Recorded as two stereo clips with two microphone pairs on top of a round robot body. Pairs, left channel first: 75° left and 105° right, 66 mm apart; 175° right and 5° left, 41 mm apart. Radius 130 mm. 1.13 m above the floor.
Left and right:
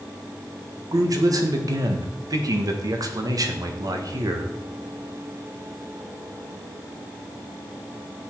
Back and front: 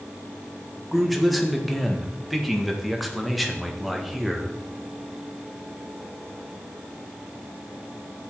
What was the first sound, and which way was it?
A man speaking, 85° right.